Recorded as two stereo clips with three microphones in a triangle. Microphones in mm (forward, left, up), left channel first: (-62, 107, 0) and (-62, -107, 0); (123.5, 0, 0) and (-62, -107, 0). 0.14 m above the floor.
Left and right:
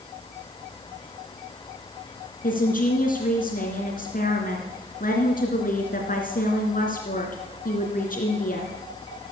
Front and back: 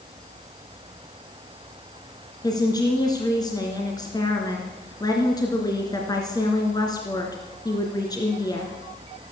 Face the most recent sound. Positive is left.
turn(degrees=90)